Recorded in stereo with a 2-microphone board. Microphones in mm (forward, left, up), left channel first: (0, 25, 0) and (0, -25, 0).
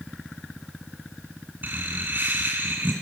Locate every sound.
1.6 s laughter: 40° right (ahead or behind), 2.0 m